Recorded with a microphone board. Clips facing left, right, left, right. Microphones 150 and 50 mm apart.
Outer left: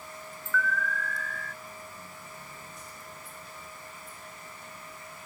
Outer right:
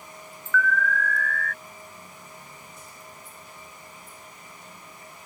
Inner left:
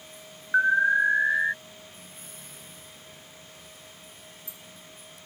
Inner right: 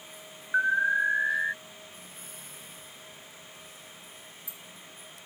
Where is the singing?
I don't hear singing.